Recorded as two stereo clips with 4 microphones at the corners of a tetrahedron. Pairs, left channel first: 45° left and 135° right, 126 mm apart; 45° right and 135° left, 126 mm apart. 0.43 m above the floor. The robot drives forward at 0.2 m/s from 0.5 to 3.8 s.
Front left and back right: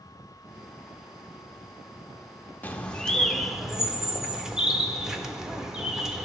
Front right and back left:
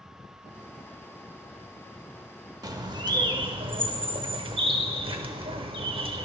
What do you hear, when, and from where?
2.6 s a bird: 115° left, 0.5 m; by 6.2 s 140° left, 0.6 m